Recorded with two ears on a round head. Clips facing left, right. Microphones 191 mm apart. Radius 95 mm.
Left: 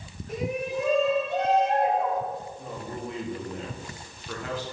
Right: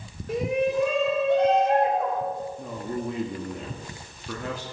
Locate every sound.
0.3 s a shout: 55° right (ahead or behind), 5 m; by 2.2 s 65° right (ahead or behind), 6 m
2.6 s a man speaking: 80° right, 2 m